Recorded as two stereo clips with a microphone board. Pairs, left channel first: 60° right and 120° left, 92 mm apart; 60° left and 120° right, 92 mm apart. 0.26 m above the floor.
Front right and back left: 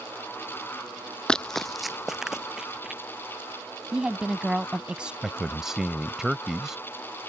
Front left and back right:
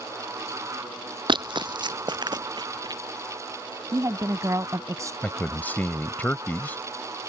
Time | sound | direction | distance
1.3 | running footsteps | 140° right | ?
3.9 | a woman speaking | 160° right | ?
5.2 | a man speaking | 45° left | ?